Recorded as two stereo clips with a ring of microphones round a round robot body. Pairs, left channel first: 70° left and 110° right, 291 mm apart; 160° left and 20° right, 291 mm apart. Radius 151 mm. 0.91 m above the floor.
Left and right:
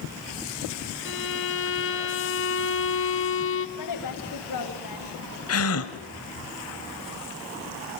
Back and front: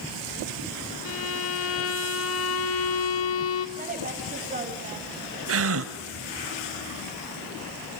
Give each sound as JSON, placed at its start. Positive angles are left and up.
{"t": 1.1, "sound": "a violin", "azimuth_deg": 115, "distance_m": 2.0}
{"t": 3.8, "sound": "a woman speaking", "azimuth_deg": 40, "distance_m": 7.0}
{"t": 5.5, "sound": "a gasp", "azimuth_deg": 25, "distance_m": 2.5}